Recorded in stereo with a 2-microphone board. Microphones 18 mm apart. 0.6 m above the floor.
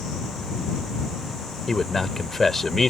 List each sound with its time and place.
1.7 s a man speaking: 30° left (ahead or behind)